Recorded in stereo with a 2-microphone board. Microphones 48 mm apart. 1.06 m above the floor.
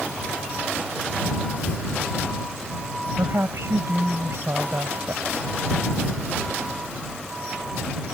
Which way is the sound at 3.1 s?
70° right (ahead or behind).